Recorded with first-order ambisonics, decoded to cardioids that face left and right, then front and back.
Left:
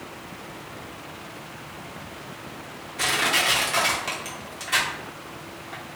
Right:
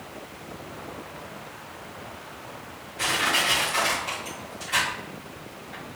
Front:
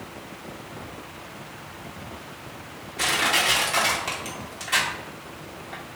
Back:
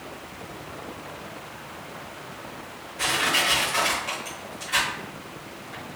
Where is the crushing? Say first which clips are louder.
Left 1 dB, front 1 dB; 50° left, 1.2 m.